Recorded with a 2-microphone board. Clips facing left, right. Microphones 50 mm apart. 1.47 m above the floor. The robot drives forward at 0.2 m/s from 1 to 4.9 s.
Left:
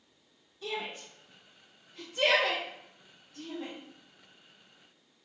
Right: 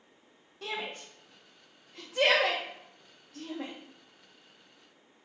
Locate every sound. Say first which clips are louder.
0.6 s a shout: even; 65° right (ahead or behind), 0.9 m; by 3.7 s 80° right, 0.9 m